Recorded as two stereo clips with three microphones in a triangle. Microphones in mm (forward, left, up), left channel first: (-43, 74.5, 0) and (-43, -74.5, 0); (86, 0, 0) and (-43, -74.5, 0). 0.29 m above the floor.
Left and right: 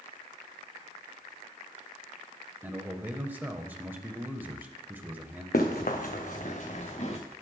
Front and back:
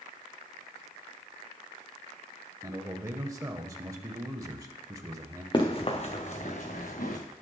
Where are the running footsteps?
85° left, 1.8 m; by 7.2 s 45° left, 2 m.